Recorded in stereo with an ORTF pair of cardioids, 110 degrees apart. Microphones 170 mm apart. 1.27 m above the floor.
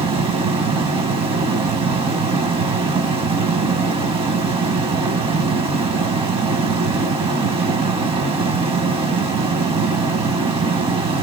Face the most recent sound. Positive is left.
turn(degrees=-35)